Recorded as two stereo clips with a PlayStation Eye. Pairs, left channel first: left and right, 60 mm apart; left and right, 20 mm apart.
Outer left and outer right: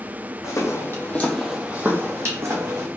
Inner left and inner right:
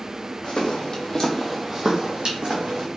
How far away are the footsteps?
About 1.2 m.